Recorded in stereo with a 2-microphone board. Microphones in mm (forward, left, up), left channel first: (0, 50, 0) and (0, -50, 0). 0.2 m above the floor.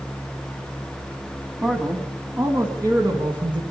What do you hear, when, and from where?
1.6 s a man speaking: 15° right (ahead or behind), 1.4 m; by 3.6 s 50° right (ahead or behind), 1.9 m